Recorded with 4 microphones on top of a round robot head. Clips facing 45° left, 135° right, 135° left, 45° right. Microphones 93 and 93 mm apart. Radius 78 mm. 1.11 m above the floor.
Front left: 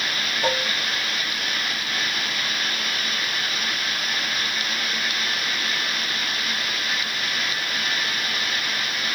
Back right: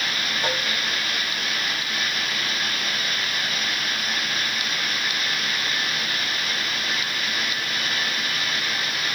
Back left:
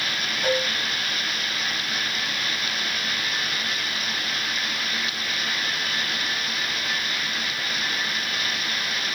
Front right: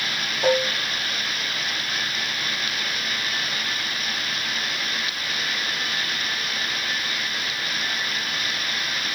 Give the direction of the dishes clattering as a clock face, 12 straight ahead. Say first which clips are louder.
Front left 4 dB, front right 4 dB; 1 o'clock.